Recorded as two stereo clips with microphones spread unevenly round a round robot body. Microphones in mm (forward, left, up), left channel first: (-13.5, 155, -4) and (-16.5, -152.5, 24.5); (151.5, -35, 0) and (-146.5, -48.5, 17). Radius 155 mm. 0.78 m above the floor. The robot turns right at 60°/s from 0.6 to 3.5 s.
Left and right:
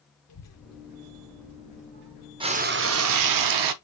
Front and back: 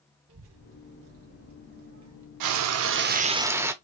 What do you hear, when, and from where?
0.3 s a child speaking: 130° left, 1.0 m; by 2.3 s 130° right, 1.0 m
2.4 s frying: 165° right, 0.7 m; by 3.7 s 95° right, 0.7 m